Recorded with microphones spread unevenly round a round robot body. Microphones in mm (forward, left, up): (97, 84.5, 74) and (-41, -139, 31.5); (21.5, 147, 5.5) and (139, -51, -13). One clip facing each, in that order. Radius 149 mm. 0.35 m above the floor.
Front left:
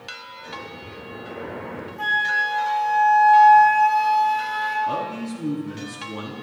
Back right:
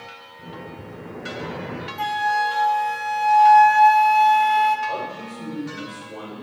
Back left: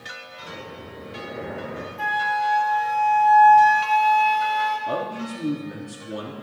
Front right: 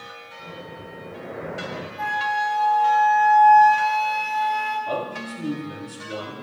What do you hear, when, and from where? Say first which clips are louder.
0.4 s breathing: back right 2 dB, even; 155° right, 4 m
2.0 s a flute: back right 6 dB, back left 1 dB; 165° right, 1.5 m
4.9 s a man speaking: front left 3 dB, even; 60° left, 5 m